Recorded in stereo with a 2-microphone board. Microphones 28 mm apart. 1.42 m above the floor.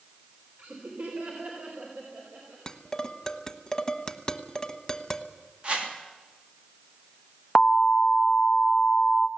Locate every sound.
0.6 s laughter: 65° right (ahead or behind), 4 m
2.7 s dishes clattering: 25° left (ahead or behind), 1.1 m
5.6 s a whoosh: 45° right (ahead or behind), 3 m
7.5 s an alarm: 10° left (ahead or behind), 1.2 m